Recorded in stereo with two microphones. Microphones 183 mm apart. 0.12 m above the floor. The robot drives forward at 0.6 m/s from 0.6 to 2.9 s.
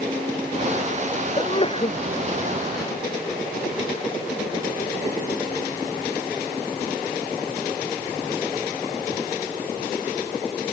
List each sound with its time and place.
1.4 s a sneeze: 30° left (ahead or behind); by 2.0 s 35° left (ahead or behind)